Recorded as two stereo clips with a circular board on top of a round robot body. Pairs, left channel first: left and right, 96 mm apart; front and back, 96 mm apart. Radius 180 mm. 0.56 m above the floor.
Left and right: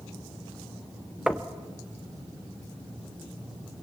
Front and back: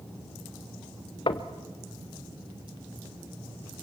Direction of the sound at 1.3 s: 10° right.